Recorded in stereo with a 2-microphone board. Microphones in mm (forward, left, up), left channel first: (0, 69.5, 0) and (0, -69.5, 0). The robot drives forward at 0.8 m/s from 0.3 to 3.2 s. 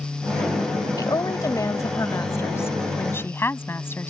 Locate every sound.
1.0 s a woman speaking: 25° left (ahead or behind); by 4.1 s 15° left (ahead or behind)